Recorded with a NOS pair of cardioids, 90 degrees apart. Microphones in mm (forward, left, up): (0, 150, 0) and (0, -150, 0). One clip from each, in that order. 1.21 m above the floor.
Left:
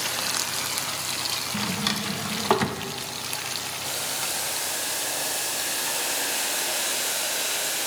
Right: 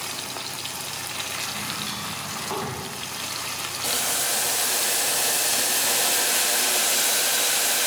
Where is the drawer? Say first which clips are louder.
Left 3 dB; 65° left, 0.9 m.